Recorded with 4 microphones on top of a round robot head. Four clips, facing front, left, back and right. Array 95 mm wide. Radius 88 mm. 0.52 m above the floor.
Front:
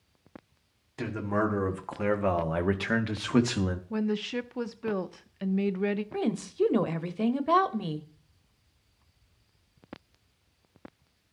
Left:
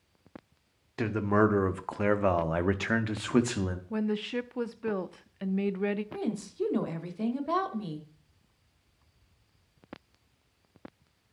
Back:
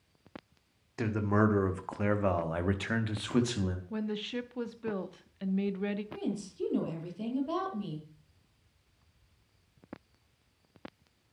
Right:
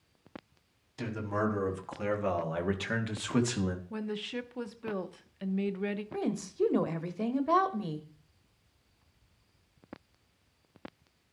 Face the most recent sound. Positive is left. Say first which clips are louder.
# right 1 dB, front 7 dB
turn(degrees=-15)